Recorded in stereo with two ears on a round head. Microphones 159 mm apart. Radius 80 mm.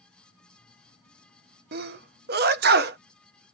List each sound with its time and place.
1.7 s a sneeze: 60° right (ahead or behind), 0.8 m